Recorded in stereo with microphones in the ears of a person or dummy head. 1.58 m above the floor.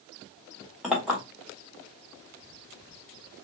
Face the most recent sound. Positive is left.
turn(degrees=0)  # may be behind; listen again after turning